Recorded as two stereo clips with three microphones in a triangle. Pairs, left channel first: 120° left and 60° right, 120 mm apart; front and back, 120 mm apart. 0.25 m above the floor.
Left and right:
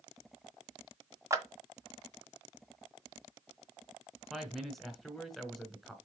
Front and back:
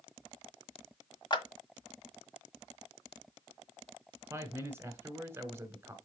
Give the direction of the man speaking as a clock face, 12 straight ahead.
5 o'clock.